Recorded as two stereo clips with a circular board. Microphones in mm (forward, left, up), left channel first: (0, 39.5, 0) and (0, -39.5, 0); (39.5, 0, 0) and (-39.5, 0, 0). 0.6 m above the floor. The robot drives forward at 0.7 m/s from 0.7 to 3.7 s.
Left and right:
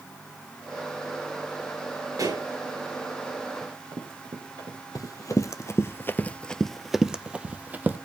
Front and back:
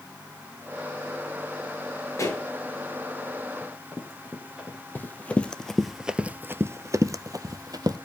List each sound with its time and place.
2.2 s a pop: 50° right, 5 m; by 2.4 s 55° right, 5 m
3.6 s running footsteps: 95° right, 4 m; by 5.8 s 105° right, 5 m
5.0 s running footsteps: 60° left, 1.0 m; by 8.0 s 155° right, 1.1 m